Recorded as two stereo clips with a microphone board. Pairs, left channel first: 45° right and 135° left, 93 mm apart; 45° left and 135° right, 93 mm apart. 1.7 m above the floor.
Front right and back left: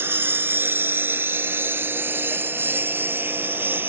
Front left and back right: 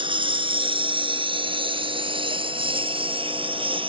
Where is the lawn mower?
160° right; by 3.9 s 155° right.